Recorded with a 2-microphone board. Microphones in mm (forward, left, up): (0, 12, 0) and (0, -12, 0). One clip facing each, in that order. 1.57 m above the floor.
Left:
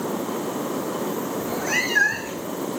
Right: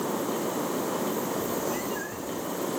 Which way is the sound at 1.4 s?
60° left (ahead or behind).